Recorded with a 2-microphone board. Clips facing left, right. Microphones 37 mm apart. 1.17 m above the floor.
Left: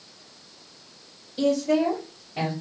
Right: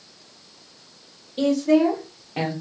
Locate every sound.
1.4 s a woman speaking: 65° right (ahead or behind), 1.9 m; by 2.5 s 50° right (ahead or behind), 1.3 m